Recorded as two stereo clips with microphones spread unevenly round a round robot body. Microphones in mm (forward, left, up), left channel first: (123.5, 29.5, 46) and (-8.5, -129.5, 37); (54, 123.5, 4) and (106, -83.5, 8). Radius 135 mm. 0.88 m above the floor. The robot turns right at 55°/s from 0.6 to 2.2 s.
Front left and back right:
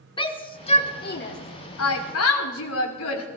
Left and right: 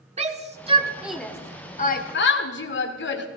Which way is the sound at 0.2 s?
15° right.